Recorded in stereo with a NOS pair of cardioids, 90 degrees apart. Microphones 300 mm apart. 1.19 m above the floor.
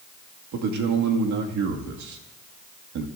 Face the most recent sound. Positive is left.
turn(degrees=-70)